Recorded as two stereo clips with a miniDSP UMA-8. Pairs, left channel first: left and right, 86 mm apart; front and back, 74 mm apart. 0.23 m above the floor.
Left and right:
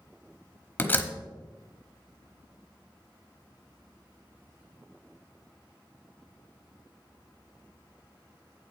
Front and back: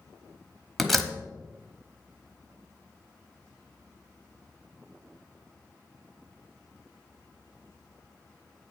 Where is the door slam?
85° left, 1.0 m.